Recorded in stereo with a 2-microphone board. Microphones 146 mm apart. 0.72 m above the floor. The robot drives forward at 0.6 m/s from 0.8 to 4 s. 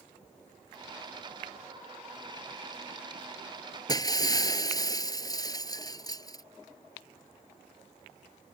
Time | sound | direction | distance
3.9 | breaking glass | 25° left (ahead or behind) | ?